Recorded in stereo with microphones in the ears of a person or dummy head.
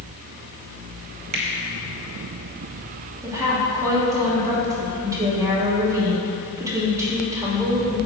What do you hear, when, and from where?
1.3 s a finger snap: 45° right (ahead or behind), 1.0 m
3.2 s a woman speaking: 15° right (ahead or behind), 2.5 m